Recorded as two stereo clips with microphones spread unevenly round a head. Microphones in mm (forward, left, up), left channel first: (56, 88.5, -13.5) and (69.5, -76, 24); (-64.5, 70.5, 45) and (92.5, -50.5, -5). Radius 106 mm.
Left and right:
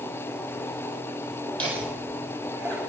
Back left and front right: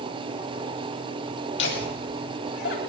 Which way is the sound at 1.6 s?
Straight behind.